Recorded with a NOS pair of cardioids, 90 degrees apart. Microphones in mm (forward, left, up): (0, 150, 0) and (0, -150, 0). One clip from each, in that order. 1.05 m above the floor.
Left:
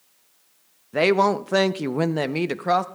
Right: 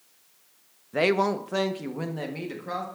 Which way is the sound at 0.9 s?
15° left.